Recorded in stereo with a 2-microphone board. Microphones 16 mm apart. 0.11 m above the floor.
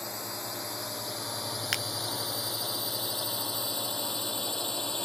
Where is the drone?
5° right (ahead or behind); by 5.1 s 30° left (ahead or behind).